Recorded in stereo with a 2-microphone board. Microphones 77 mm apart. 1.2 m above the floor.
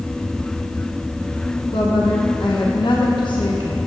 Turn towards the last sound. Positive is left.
turn(degrees=85)